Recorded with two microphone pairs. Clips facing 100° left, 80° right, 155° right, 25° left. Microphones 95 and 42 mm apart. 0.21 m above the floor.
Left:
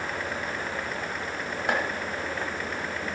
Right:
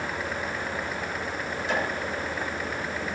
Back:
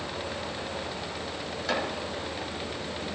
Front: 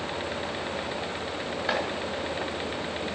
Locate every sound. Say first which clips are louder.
1.7 s chopping: left 1 dB, front 1 dB; 90° left, 3 m